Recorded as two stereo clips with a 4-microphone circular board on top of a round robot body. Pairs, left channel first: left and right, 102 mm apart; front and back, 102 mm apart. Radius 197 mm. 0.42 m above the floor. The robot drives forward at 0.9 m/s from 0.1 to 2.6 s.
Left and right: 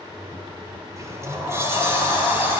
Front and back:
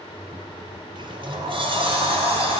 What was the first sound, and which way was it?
A sliding door, 145° right.